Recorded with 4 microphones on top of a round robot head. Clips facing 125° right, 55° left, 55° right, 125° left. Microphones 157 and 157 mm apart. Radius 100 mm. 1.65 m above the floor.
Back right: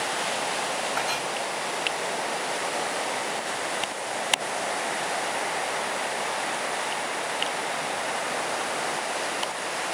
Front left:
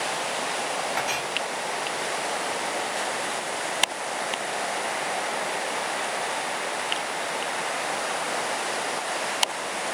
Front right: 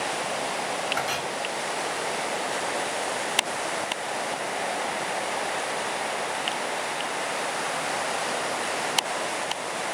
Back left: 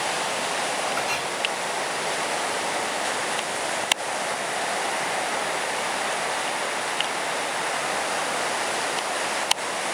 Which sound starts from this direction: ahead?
A clink, at 1.0 s.